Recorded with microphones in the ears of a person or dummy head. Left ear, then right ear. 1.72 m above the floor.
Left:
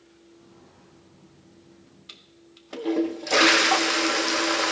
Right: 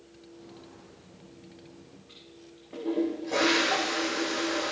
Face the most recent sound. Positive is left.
turn(degrees=50)  # may be behind; listen again after turning